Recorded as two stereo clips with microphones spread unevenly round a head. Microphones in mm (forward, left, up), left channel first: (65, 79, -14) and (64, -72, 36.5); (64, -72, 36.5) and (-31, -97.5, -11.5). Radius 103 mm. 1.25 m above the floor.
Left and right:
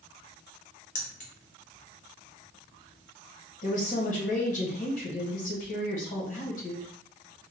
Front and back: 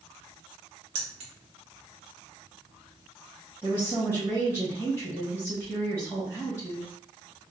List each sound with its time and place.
0.9 s keys jangling: 145° left, 0.6 m
3.6 s a woman speaking: 100° left, 1.3 m